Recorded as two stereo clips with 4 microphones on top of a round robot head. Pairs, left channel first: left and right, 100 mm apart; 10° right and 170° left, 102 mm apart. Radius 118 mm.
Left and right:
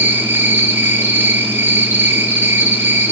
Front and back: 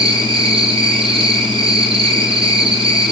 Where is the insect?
160° right, 2 m.